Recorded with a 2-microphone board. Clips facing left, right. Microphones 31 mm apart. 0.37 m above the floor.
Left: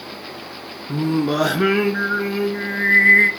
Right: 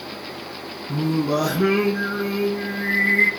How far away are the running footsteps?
No running footsteps in this recording.